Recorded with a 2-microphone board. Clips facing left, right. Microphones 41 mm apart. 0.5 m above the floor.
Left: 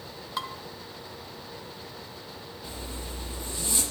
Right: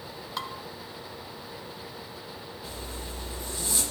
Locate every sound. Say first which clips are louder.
0.4 s dishes clattering: left 2 dB; 5° left (ahead or behind), 1.2 m
2.6 s a zipper: left 1 dB; 30° left (ahead or behind), 5 m